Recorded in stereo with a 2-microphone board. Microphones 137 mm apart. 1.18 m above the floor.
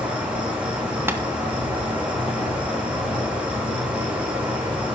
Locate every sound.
0.0 s an insect: 10° right (ahead or behind), 7.5 m
1.1 s tapping: 15° right (ahead or behind), 1.9 m